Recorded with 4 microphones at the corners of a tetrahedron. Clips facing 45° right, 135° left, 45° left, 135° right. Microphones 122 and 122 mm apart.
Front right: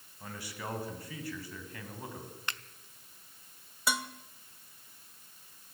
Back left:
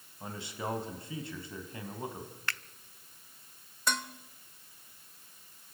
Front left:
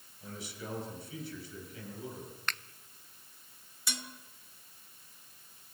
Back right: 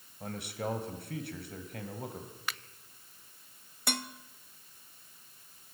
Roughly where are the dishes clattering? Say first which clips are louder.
Even, back right 7 dB; behind right.